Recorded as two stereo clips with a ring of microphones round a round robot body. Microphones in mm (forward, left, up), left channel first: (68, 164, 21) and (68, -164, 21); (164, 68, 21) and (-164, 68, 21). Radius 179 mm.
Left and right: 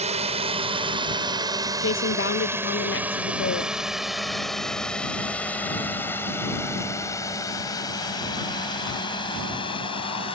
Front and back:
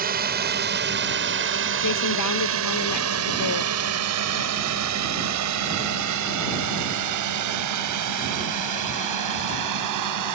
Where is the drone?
145° right; by 10.3 s 165° left.